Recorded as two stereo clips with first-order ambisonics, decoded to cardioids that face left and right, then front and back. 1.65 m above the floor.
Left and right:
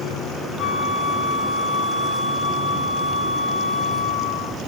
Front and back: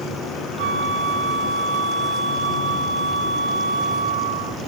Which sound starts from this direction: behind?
A flute, at 0.6 s.